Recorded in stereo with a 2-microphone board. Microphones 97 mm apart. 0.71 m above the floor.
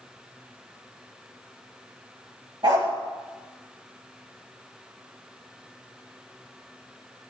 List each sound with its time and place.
2.6 s a dog barking: 60° right (ahead or behind), 4.5 m